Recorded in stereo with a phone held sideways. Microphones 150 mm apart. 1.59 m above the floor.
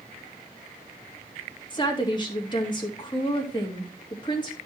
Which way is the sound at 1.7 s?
30° left (ahead or behind).